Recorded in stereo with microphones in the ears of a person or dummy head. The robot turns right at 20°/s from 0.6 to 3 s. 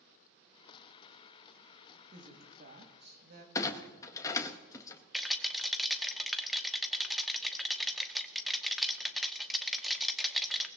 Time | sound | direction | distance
2.1 | a woman speaking | 35° right (ahead or behind) | 2 m
3.5 | a clunk | 15° left (ahead or behind) | 1.1 m
5.1 | a rattle | centre (ahead or behind) | 0.7 m